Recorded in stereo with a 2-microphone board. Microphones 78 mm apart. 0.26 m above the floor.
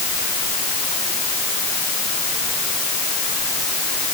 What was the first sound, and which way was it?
Only background noise.